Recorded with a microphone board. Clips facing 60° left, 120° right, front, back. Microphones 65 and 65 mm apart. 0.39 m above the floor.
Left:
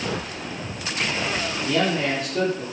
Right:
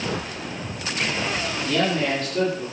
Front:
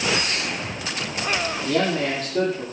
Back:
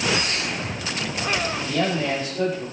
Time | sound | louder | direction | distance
1.6 | a man speaking | even, front 2 dB | 15° right | 6.5 m